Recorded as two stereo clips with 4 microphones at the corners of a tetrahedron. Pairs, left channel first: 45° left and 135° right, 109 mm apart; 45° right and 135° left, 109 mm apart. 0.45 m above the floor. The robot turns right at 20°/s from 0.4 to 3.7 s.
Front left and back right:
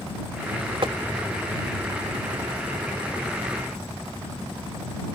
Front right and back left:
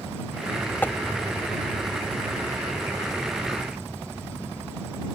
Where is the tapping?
115° right; by 0.9 s 110° right.